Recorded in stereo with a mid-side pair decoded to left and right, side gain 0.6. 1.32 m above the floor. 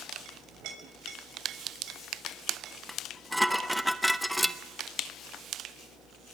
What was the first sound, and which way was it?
A clink, 60° right.